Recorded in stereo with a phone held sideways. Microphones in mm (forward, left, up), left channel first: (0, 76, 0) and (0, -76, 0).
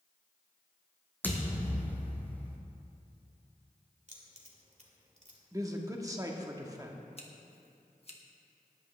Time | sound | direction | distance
1.2 | a thud | 15° left (ahead or behind) | 2 m
4.1 | keys jangling | 50° right (ahead or behind) | 2 m
5.5 | a man speaking | 25° right (ahead or behind) | 1.3 m
7.2 | scissors | 40° left (ahead or behind) | 1.5 m